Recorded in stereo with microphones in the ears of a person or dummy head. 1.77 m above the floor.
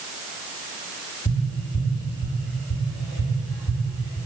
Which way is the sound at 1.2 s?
40° left (ahead or behind).